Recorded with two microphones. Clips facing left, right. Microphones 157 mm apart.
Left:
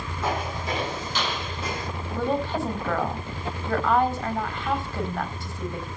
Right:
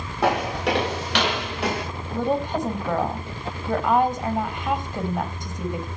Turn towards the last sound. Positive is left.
turn(degrees=-20)  # may be behind; listen again after turning